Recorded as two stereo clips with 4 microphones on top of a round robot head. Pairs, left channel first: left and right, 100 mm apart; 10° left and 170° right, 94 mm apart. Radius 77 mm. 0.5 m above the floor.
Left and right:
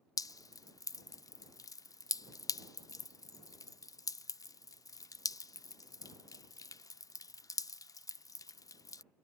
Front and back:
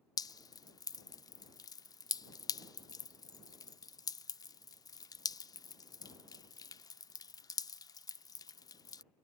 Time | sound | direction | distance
0.2 | dripping | 45° left | ?